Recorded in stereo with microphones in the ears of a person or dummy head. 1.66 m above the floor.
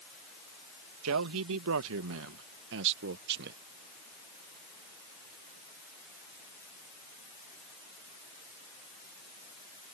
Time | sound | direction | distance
1.0 | a man speaking | 85° right | ?